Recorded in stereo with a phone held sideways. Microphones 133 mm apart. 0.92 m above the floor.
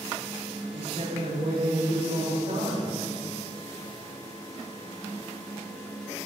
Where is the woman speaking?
75° right (ahead or behind), 1.9 m.